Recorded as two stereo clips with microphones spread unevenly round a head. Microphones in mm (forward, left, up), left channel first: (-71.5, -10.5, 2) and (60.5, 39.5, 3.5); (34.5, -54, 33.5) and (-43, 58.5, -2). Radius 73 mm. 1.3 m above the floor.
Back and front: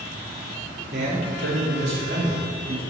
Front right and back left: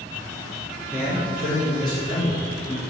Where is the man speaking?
20° left, 3.5 m; by 2.8 s 10° right, 3.5 m.